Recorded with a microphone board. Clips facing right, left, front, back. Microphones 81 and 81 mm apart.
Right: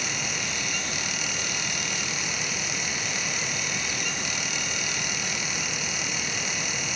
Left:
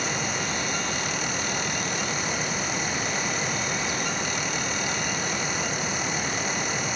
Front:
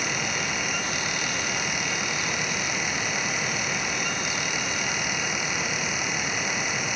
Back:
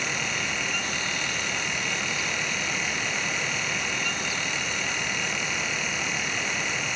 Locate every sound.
Only background noise.